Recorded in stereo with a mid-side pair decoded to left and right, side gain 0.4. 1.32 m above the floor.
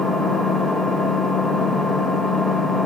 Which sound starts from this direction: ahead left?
An engine running, at 0.0 s.